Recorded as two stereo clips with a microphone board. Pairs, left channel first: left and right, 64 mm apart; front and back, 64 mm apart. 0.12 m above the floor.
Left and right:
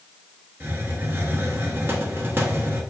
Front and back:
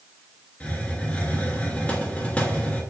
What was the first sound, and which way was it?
A hiss, 55° right.